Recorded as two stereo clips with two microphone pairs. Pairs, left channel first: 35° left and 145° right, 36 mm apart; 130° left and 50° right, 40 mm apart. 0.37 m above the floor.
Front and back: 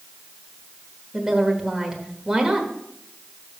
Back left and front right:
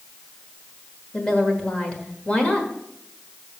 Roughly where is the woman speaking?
Behind.